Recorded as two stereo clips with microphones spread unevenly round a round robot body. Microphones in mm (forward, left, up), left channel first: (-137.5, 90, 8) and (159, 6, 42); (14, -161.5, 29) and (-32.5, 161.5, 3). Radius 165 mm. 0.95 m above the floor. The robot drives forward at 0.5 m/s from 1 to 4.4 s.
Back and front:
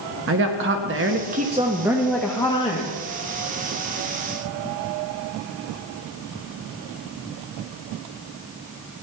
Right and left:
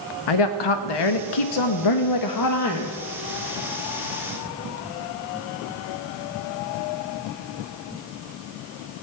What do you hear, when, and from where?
0.3 s a woman speaking: 75° right, 0.9 m; by 3.0 s 130° right, 1.1 m